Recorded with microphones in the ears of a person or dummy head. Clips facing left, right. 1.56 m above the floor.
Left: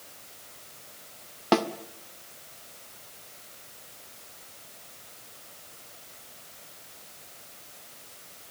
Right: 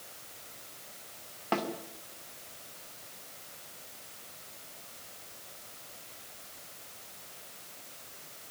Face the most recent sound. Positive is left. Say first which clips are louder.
# left 9 dB
turn(degrees=60)  # may be behind; listen again after turning